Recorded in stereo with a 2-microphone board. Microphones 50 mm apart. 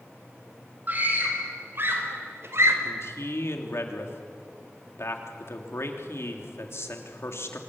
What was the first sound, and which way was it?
A scream, 40° right (ahead or behind).